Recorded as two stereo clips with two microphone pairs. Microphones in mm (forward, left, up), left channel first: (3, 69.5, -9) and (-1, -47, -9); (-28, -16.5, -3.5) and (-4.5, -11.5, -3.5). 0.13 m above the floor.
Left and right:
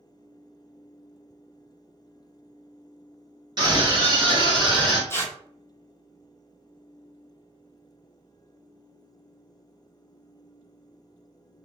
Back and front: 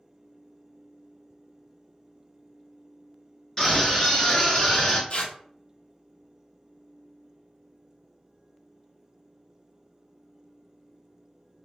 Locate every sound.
3.6 s a scream: 115° right, 1.8 m; by 5.0 s 125° right, 2.5 m
5.1 s tearing paper: 155° left, 0.7 m